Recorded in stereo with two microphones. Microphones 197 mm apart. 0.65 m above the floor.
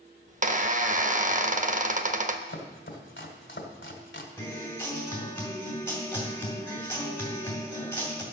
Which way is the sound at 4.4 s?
15° left (ahead or behind).